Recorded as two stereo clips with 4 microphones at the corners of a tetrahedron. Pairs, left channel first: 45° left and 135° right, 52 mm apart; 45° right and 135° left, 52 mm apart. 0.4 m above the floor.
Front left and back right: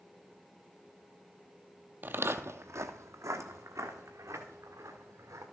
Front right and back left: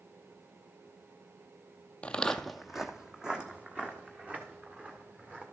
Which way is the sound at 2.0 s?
100° right.